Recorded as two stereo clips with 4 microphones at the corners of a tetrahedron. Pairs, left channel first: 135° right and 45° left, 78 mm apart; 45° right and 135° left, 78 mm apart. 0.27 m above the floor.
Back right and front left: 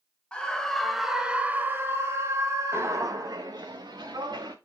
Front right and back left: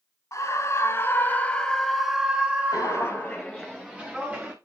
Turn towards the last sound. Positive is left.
turn(degrees=65)